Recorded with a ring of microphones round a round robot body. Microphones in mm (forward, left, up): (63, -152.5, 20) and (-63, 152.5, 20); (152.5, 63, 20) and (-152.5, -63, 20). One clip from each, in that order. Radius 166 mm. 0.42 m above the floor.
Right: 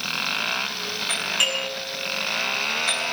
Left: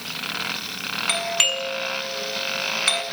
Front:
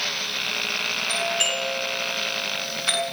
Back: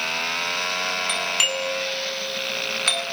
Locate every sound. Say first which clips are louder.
1.1 s a doorbell: left 1 dB, back 1 dB; 170° left, 6.5 m